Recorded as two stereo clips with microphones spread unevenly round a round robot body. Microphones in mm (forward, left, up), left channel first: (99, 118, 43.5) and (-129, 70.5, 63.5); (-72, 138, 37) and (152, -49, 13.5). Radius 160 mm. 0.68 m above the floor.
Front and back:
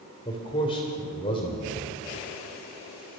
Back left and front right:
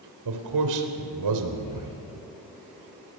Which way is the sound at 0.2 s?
60° right.